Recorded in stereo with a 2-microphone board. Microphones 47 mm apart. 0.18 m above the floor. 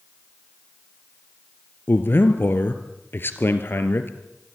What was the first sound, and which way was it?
A man speaking, 50° left (ahead or behind).